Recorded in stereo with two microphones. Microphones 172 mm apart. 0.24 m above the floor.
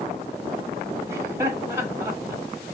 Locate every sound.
1.1 s laughter: 15° right (ahead or behind), 1.5 m